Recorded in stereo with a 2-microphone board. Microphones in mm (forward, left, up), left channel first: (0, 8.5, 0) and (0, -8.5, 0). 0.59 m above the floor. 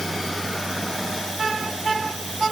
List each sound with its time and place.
Only background noise.